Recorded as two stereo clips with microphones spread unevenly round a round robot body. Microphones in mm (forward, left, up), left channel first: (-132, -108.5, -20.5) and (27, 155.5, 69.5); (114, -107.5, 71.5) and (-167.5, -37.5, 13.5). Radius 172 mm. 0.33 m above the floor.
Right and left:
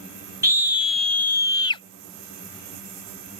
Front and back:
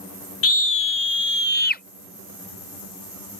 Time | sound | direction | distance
0.4 | a scream | 35° right | ?